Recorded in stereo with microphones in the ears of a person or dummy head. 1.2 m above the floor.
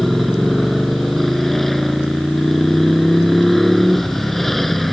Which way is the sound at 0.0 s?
5° left (ahead or behind).